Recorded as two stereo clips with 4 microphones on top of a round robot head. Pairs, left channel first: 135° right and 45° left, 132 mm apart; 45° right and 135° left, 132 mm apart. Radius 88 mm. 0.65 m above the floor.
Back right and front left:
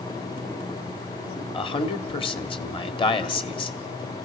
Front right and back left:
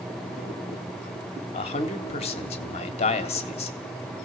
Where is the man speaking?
85° right, 1.3 m.